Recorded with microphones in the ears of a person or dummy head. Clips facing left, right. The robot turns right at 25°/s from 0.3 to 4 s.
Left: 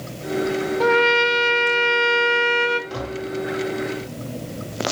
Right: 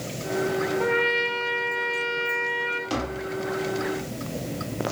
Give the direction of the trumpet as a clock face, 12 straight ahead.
10 o'clock.